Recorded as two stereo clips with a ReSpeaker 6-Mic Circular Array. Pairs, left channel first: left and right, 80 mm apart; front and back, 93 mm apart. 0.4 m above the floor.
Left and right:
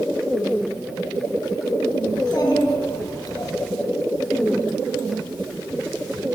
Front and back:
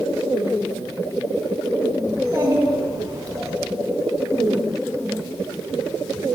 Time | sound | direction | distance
2.1 | a child speaking | 125° left | 1.9 m